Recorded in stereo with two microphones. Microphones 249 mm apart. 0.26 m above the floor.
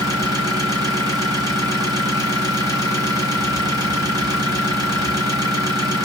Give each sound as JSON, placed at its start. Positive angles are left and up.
{"t": 0.0, "sound": "an engine running", "side_deg": -15, "distance_m": 1.3}